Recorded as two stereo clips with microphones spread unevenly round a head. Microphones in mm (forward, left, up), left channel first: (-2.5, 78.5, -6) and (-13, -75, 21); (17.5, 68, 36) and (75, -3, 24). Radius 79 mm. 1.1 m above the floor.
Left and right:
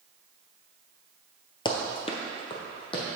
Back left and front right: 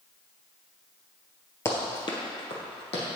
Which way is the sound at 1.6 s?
140° left.